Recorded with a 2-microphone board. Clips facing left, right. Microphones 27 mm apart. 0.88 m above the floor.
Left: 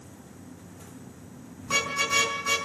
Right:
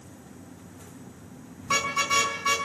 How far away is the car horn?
About 6 m.